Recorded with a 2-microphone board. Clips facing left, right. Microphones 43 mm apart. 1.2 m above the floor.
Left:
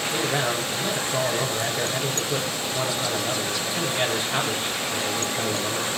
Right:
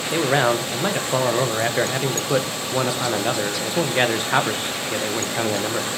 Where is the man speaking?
60° right (ahead or behind), 1.1 m.